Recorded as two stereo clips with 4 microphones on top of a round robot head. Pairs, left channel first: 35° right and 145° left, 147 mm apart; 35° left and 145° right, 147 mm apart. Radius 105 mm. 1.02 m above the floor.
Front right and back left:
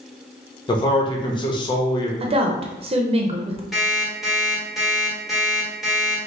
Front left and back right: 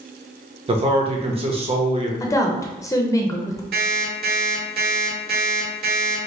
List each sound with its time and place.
0.7 s a man speaking: 95° right, 1.0 m
2.2 s a woman speaking: 100° left, 0.7 m
3.7 s an alarm clock: 130° right, 1.4 m